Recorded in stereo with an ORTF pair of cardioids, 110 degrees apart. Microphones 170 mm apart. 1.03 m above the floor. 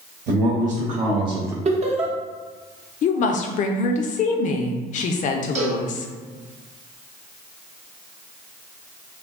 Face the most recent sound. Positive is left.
turn(degrees=-45)